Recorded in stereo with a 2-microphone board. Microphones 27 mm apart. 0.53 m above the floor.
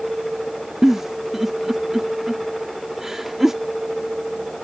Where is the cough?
I don't hear a cough.